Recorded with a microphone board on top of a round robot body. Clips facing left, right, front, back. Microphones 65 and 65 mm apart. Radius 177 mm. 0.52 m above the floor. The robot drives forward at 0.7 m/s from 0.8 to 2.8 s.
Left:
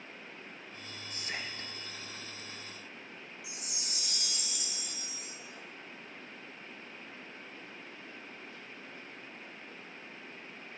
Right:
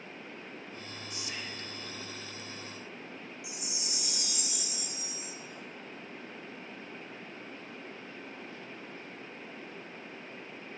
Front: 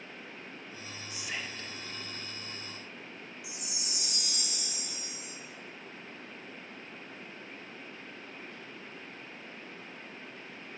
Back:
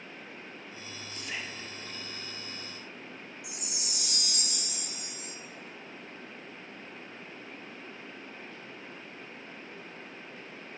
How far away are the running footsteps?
I don't hear running footsteps.